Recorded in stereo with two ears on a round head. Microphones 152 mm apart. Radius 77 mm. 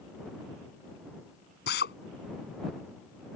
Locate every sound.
1.7 s a drill: 65° left (ahead or behind)